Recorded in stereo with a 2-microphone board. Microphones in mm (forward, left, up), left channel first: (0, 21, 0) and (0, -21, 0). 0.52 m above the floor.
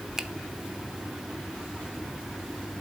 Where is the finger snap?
10° right (ahead or behind), 0.5 m.